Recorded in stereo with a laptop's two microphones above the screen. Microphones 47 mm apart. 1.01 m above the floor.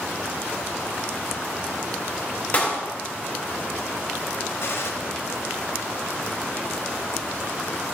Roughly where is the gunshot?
Left.